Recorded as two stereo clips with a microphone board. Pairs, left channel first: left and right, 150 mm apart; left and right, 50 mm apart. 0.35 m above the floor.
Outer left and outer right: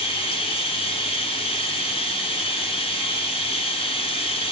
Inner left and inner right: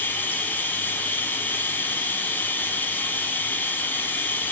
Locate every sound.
0.0 s running water: 35° left (ahead or behind), 1.1 m